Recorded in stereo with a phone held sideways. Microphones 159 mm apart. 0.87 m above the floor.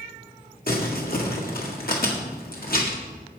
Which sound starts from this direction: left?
Crumpling, at 0.7 s.